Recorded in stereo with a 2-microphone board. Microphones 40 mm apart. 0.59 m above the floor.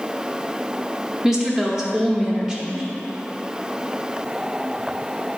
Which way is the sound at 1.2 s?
15° right (ahead or behind).